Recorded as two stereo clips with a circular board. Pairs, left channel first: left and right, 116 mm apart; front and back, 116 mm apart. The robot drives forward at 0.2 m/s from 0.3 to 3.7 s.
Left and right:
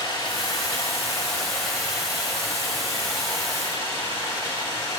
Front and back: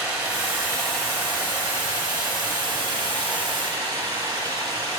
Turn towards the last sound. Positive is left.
turn(degrees=145)